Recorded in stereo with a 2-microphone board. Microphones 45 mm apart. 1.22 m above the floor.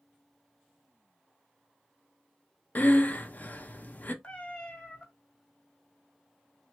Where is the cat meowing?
25° left (ahead or behind), 1.2 m.